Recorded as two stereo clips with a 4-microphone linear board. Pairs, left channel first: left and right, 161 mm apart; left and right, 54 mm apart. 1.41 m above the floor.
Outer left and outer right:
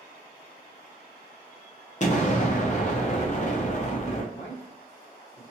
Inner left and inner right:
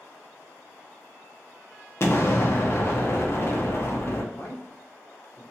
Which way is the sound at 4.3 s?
50° left (ahead or behind).